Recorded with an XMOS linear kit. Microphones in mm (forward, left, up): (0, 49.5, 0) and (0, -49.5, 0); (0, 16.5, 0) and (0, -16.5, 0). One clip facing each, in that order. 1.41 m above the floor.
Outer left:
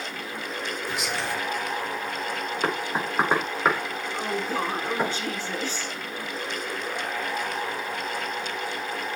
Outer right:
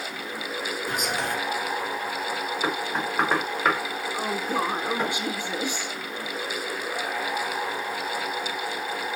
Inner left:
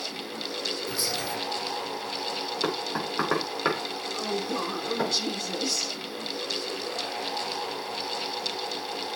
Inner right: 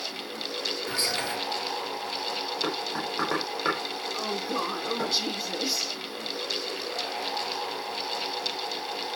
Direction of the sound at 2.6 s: 10° left (ahead or behind).